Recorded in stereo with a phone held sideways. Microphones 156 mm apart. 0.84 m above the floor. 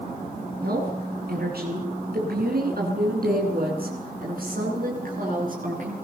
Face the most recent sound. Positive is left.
turn(degrees=-65)  # may be behind; listen again after turning